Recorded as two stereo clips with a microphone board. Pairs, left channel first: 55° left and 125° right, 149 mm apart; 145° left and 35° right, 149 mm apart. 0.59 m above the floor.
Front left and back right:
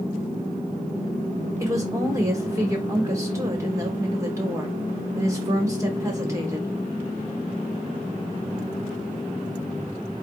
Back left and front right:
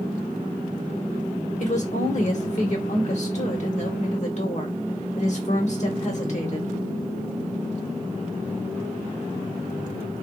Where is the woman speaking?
170° left, 1.1 m.